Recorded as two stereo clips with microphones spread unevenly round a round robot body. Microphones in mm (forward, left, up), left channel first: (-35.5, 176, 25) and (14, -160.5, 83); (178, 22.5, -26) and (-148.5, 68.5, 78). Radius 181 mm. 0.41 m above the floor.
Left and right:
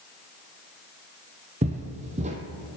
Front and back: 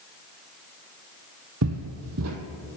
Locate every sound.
1.6 s footsteps: 150° right, 0.9 m